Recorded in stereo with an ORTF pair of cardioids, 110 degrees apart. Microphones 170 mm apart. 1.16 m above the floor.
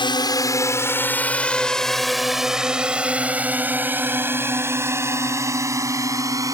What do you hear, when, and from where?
0.0 s a drone: 30° left; by 6.5 s 20° right